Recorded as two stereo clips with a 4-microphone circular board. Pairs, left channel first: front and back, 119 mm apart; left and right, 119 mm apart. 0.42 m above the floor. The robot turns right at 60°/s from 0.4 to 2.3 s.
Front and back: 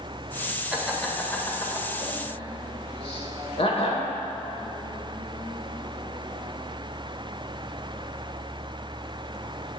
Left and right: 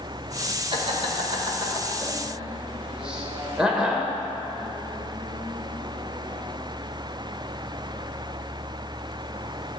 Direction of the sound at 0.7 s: 105° right.